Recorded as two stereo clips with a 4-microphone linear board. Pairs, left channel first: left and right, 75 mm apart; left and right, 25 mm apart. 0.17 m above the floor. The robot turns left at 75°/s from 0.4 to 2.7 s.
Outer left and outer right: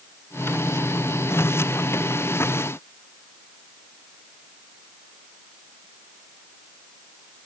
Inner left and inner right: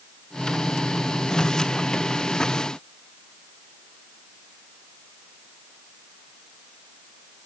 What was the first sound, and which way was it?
Only background noise.